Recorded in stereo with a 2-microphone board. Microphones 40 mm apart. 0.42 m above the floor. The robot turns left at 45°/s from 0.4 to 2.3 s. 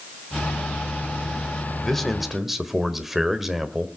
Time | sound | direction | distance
1.8 | a man speaking | 15° left (ahead or behind) | 1.6 m